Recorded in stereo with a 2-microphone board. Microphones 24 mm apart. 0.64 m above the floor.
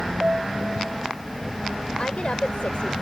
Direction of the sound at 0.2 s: 40° right (ahead or behind).